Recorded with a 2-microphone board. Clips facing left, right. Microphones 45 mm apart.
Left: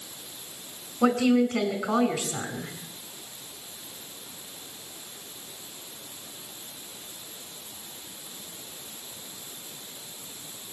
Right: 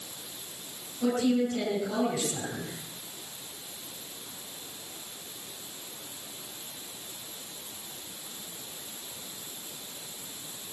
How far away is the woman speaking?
About 5 m.